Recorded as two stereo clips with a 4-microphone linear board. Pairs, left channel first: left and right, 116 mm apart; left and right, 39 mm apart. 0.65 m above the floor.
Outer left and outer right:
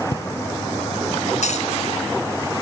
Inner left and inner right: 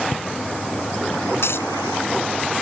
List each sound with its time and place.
0.1 s footsteps: 55° left (ahead or behind); by 1.2 s 40° left (ahead or behind)
1.4 s a dropped coin: 80° left